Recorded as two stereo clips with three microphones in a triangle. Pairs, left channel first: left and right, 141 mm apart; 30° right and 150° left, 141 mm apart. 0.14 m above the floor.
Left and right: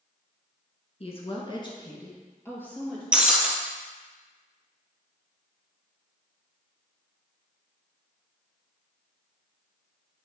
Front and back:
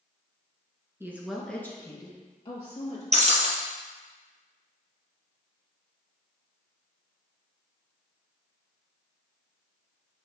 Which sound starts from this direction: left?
A woman speaking, at 1.0 s.